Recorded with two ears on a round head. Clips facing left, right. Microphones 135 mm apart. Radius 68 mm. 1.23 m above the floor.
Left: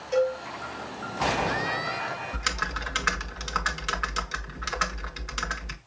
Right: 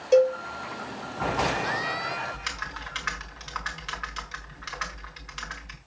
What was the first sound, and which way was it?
A cowbell, 65° right (ahead or behind).